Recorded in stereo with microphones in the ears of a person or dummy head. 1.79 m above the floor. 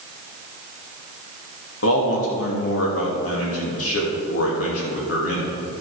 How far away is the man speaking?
About 2.5 m.